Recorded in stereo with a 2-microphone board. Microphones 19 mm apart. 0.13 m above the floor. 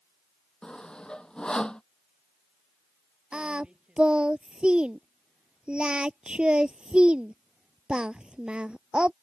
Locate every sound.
0.6 s sawing: 55° left (ahead or behind)
3.3 s singing: 65° right (ahead or behind)